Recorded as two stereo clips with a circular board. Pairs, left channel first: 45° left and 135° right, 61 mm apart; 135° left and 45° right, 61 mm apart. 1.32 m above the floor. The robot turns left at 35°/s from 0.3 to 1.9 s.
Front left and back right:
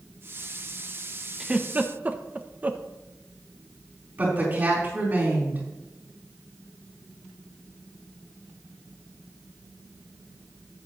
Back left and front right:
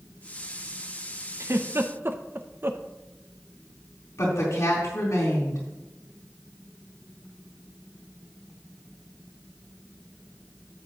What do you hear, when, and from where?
1.4 s a giggle: 65° right, 0.6 m; by 2.8 s 80° right, 0.6 m
4.2 s a woman speaking: 165° left, 3.5 m